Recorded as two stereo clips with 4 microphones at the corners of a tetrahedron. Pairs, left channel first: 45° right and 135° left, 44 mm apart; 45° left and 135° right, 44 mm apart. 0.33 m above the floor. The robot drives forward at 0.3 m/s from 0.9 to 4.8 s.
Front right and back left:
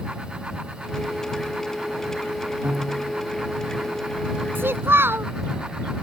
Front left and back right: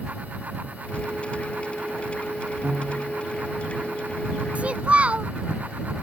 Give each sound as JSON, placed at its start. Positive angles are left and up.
{"t": 2.6, "sound": "a piano", "azimuth_deg": 165}
{"t": 4.5, "sound": "a child speaking", "azimuth_deg": 165}